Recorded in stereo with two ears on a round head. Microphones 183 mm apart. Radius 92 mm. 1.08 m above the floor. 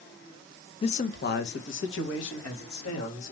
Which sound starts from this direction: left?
A man speaking, at 0.8 s.